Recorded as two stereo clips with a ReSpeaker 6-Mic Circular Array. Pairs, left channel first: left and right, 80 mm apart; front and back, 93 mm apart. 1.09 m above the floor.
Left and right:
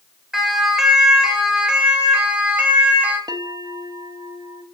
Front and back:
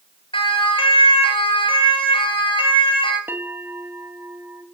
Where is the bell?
115° right, 2 m.